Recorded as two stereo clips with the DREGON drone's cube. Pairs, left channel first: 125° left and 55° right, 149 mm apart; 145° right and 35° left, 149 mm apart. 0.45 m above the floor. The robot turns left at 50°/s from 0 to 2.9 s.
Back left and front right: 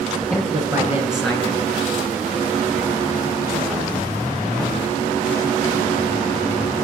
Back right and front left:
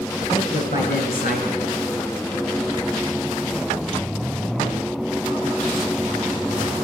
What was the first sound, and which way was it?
A man speaking, 100° right.